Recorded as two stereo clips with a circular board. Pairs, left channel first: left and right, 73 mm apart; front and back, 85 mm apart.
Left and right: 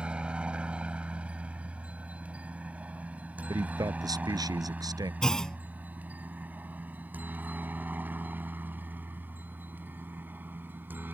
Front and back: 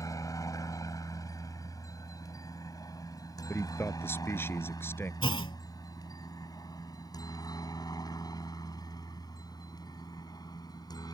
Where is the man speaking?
60° right.